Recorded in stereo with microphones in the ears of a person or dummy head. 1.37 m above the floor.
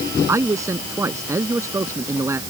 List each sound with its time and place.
0.3 s a man speaking: 20° right (ahead or behind)